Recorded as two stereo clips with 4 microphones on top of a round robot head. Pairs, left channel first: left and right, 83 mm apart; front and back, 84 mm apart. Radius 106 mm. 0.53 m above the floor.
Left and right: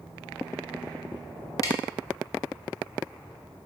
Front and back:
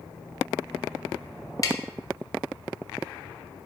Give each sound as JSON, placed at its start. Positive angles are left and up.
{"t": 1.6, "sound": "tapping", "azimuth_deg": 45, "distance_m": 1.4}